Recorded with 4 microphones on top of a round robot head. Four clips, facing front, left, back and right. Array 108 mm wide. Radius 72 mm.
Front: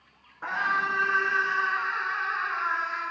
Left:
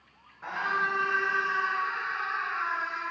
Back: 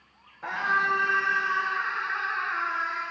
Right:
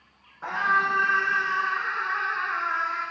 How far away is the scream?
About 9 m.